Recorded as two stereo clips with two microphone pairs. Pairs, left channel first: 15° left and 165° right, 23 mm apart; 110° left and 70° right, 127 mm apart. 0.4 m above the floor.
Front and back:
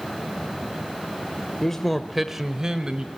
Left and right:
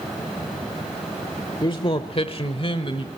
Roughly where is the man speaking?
Left.